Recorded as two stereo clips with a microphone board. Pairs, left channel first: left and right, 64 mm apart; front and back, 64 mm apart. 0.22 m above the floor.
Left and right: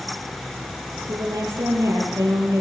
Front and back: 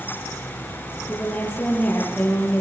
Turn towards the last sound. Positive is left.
turn(degrees=-65)